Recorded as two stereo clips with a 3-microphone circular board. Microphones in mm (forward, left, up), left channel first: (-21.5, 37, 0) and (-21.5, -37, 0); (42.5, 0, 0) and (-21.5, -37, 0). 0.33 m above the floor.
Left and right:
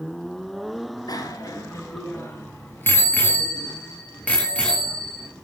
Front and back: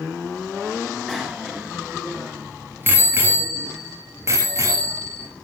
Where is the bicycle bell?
120° left, 3.5 m; by 5.3 s 170° left, 7.5 m.